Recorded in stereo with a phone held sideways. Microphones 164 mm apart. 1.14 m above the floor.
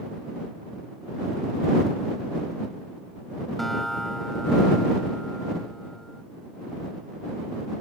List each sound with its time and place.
3.6 s a guitar: centre (ahead or behind)